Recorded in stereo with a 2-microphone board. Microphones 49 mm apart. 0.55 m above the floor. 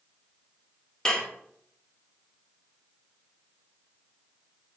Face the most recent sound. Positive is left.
turn(degrees=15)  # may be behind; listen again after turning